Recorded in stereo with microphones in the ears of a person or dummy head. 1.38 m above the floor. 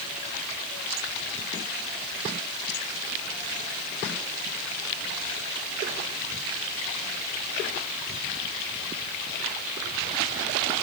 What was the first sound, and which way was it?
Only background noise.